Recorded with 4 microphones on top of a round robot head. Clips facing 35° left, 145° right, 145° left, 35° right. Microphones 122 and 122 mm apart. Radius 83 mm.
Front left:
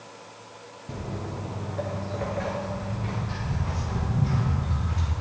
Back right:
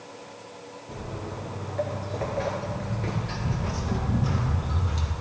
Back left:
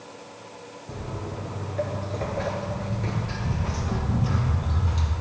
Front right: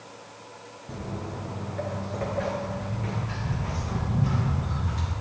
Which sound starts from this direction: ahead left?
Footsteps, at 0.9 s.